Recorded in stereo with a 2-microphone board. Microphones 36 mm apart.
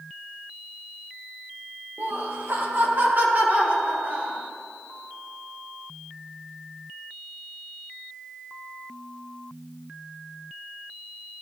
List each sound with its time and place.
2.0 s laughter: 80° right, 2 m; by 4.4 s 50° right (ahead or behind), 3.5 m